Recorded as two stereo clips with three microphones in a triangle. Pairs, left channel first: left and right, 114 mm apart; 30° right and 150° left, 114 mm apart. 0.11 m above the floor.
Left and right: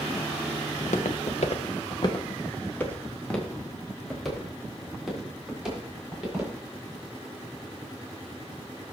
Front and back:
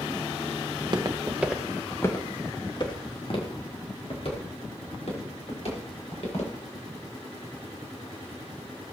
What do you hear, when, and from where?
0.7 s footsteps: 110° left, 1.5 m; by 6.5 s 5° right, 7 m